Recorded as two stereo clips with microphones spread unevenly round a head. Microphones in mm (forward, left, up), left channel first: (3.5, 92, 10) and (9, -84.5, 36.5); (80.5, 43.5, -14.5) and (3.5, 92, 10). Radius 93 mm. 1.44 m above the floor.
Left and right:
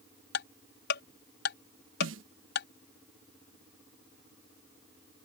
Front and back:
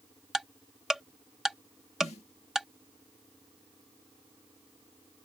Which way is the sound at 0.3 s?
65° left.